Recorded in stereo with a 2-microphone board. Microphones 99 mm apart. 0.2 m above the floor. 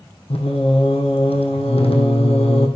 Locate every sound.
0.3 s singing: 75° left (ahead or behind), 2.5 m